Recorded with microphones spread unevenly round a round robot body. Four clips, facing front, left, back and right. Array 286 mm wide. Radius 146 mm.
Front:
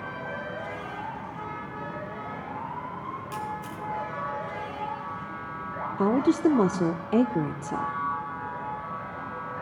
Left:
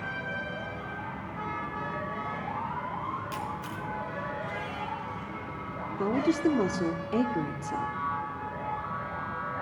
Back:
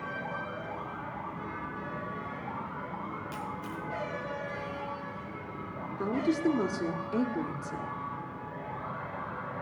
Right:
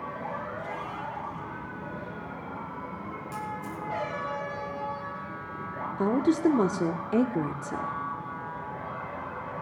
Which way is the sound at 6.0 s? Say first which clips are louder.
Right 2 dB, front 7 dB; 20° right.